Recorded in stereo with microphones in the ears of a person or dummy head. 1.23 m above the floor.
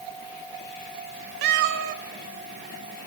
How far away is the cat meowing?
About 0.9 m.